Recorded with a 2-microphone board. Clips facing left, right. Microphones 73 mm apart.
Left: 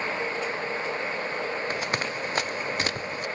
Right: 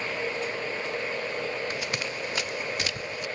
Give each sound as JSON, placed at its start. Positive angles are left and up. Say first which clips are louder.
{"t": 1.7, "sound": "running footsteps", "louder": "left 3 dB", "side_deg": 40}